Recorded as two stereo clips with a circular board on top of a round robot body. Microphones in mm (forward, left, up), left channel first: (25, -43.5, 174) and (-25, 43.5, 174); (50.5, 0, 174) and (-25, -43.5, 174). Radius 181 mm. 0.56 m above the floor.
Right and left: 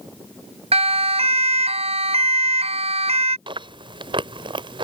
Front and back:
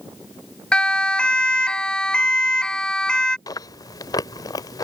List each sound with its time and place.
0.7 s a siren: 110° left
3.5 s chewing: 80° left